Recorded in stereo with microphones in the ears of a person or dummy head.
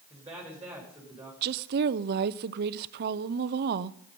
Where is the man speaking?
5° right (ahead or behind), 3.5 m.